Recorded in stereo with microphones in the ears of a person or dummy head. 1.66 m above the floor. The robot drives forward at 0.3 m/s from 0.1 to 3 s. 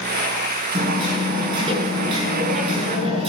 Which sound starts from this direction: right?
Hammering, at 0.7 s.